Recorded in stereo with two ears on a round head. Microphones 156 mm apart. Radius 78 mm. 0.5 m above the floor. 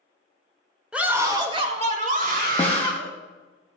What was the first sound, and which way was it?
A scream, 5° right (ahead or behind).